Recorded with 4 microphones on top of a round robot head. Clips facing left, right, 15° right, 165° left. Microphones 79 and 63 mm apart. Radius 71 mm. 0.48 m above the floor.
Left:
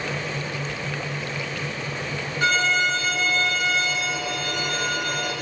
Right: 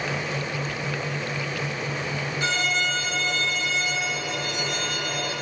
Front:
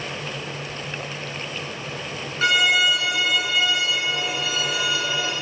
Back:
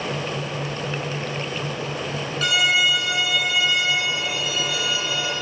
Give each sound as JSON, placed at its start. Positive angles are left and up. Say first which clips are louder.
{"t": 2.4, "sound": "a violin", "louder": "left 6 dB, front 2 dB", "azimuth_deg": 45, "distance_m": 6.0}